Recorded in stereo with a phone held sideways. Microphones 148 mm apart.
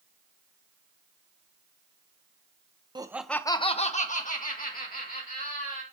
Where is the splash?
I don't hear a splash.